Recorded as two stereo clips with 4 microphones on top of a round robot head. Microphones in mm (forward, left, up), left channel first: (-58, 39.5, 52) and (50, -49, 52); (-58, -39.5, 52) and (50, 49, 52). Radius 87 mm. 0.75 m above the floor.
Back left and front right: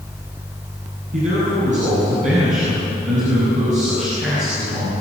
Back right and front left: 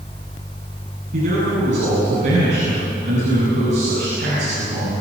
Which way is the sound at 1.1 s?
Straight ahead.